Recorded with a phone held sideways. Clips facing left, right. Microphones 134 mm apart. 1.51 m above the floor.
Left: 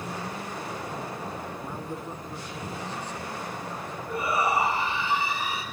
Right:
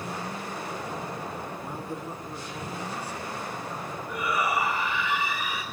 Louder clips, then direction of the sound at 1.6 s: Even; 10° right (ahead or behind).